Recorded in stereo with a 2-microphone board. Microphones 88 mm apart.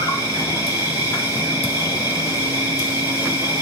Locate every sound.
0.0 s an insect: 35° left (ahead or behind), 2.5 m